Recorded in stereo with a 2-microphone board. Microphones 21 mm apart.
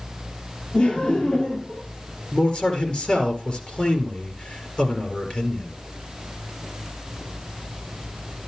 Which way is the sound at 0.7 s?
70° left (ahead or behind).